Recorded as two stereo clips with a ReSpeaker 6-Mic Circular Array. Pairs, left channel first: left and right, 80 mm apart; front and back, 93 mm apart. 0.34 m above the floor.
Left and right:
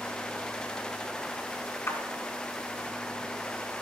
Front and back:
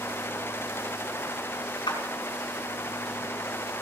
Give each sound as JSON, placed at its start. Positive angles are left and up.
{"t": 1.9, "sound": "a clap", "azimuth_deg": 35, "distance_m": 3.0}